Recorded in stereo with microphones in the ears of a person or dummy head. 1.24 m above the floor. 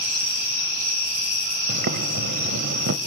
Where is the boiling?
50° right (ahead or behind), 0.8 m.